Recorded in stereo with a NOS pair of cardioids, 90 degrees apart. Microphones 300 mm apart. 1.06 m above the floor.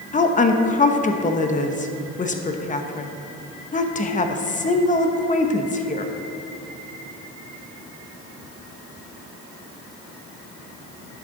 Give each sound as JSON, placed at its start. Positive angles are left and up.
{"t": 0.1, "sound": "a woman speaking", "azimuth_deg": 25, "distance_m": 1.1}